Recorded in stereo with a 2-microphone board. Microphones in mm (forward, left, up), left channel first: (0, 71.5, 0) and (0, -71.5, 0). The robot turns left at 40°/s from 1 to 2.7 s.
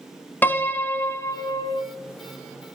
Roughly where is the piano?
Behind.